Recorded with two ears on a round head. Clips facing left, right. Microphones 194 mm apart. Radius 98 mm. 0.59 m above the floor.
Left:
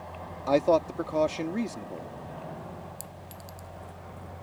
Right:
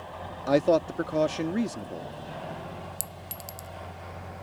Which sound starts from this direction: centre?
A man speaking, at 0.5 s.